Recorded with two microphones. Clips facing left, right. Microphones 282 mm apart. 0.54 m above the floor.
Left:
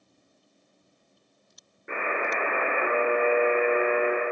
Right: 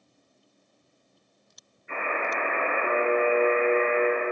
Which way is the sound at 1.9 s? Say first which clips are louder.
Left 1 dB; 80° left.